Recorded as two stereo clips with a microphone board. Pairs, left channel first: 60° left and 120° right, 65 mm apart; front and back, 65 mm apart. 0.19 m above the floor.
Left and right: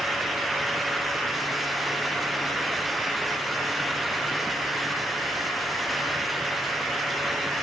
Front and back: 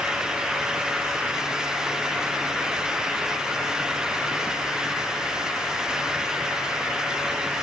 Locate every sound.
Only background noise.